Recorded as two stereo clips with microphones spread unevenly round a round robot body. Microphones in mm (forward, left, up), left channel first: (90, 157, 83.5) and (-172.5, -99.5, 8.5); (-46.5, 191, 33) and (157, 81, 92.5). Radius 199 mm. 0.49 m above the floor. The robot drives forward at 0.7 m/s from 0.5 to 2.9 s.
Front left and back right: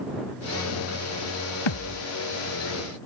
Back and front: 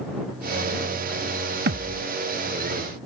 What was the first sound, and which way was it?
A thud, 15° left.